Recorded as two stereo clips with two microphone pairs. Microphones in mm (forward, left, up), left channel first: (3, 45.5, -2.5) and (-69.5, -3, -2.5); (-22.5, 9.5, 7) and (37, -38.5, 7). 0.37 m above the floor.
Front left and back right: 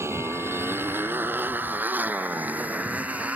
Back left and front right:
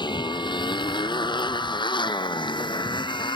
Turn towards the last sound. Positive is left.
turn(degrees=140)